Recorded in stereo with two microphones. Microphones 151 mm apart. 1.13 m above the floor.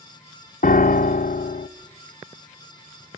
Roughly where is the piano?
Left.